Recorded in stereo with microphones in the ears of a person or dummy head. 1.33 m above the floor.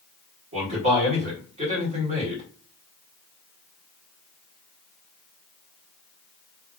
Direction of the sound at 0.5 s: 35° right (ahead or behind).